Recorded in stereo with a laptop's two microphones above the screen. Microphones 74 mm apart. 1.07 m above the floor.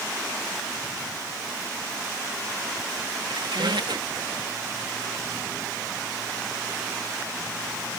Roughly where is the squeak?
Right.